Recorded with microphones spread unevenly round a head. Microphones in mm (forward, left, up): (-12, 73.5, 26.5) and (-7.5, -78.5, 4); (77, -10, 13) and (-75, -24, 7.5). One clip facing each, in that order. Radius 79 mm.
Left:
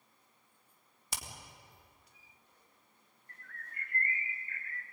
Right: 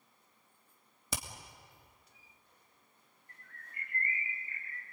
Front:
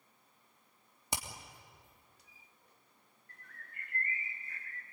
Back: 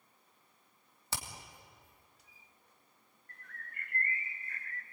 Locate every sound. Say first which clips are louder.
1.1 s hammering: right 5 dB, front 2 dB; 70° right, 3 m
3.3 s a bird: left 3 dB, back 4 dB; 160° right, 1.0 m